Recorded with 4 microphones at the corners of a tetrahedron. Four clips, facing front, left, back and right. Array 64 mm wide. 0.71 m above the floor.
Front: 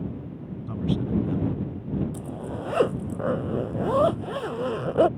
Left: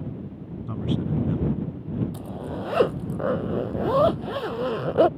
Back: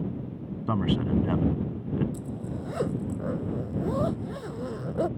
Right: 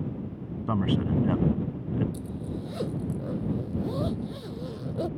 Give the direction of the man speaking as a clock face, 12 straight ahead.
5 o'clock.